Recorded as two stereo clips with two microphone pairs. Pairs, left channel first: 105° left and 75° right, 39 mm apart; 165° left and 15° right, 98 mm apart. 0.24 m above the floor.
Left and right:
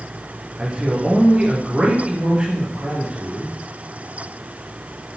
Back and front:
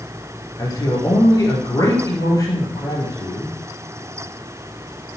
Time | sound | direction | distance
0.6 | a man speaking | 140° right | 3.5 m